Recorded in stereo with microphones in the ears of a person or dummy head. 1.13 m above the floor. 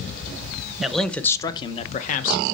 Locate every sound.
0.8 s a man speaking: 5° right (ahead or behind), 0.9 m; by 2.4 s 50° left (ahead or behind), 1.0 m